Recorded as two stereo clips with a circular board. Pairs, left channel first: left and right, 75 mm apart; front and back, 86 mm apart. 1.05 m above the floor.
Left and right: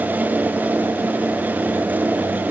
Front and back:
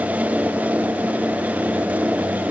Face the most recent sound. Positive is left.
No sound to turn to.